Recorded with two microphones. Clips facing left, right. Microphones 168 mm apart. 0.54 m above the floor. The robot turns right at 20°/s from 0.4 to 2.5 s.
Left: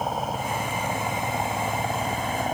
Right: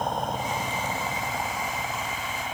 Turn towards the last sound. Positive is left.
turn(degrees=40)  # may be behind; listen again after turning